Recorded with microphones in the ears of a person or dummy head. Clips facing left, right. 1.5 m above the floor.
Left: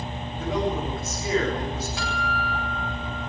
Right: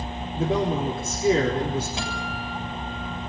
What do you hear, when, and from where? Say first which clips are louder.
0.3 s a man speaking: right 3 dB; 25° right (ahead or behind), 4.5 m
2.0 s a guitar: left 2 dB; 20° right (ahead or behind), 8.5 m